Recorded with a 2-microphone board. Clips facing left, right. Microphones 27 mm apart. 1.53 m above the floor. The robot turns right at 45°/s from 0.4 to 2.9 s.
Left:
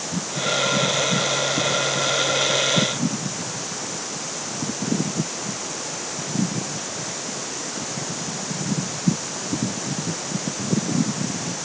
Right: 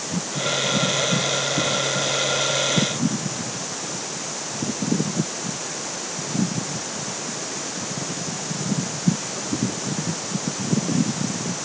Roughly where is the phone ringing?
I don't hear a phone ringing.